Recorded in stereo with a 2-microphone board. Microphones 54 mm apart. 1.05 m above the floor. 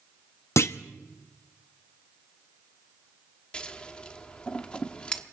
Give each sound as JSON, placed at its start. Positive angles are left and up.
{"t": 0.6, "sound": "a clunk", "side_deg": 60, "distance_m": 0.7}
{"t": 3.5, "sound": "scissors", "side_deg": 20, "distance_m": 1.2}